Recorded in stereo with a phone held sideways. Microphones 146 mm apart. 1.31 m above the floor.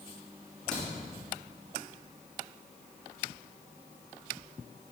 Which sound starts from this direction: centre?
A crack, at 0.7 s.